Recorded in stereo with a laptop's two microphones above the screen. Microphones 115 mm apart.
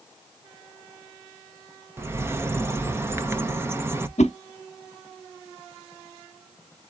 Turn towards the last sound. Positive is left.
turn(degrees=85)